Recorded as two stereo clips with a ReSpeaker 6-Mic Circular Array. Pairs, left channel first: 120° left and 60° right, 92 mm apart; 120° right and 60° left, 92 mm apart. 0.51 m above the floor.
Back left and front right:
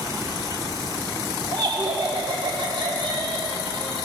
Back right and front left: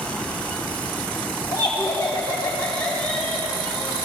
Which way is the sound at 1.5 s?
70° right.